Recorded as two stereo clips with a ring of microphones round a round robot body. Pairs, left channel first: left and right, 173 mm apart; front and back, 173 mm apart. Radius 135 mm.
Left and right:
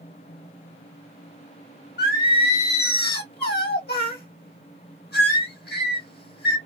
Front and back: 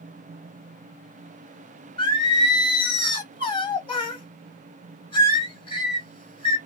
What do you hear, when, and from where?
2.0 s singing: 60° left, 1.2 m